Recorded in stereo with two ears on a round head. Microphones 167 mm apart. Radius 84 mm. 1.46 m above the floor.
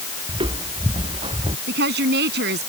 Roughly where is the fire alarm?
No fire alarm in this recording.